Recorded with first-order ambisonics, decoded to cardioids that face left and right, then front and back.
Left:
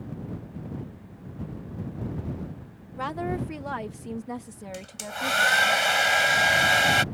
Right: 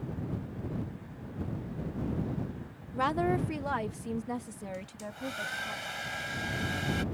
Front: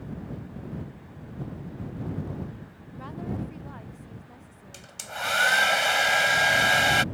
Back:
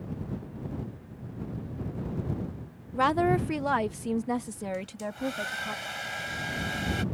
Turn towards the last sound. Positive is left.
turn(degrees=45)